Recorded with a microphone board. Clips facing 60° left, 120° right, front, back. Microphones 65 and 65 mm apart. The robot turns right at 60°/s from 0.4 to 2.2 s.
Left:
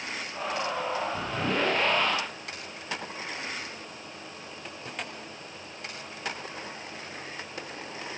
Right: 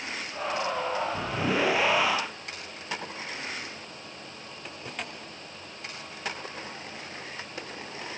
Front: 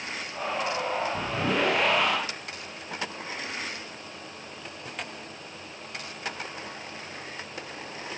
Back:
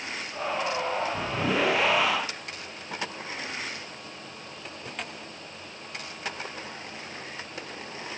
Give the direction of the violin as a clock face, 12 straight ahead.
No violin in this recording.